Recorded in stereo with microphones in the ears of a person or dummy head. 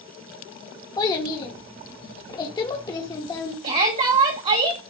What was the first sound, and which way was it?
A child speaking, 25° left (ahead or behind).